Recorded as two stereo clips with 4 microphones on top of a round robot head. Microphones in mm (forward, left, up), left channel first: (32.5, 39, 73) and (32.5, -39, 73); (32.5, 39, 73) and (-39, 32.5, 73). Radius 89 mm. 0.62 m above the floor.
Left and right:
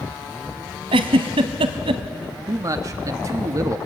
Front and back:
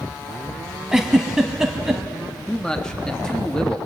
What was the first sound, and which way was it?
A giggle, 85° right.